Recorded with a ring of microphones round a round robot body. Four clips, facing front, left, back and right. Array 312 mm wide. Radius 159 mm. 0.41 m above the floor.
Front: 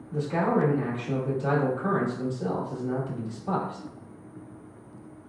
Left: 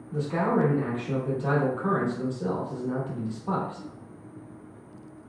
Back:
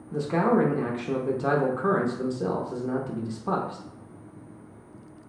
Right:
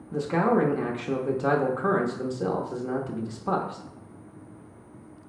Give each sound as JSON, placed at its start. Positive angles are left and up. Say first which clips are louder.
{"t": 0.1, "sound": "a man speaking", "louder": "right 2 dB, back 2 dB", "azimuth_deg": -125, "distance_m": 1.0}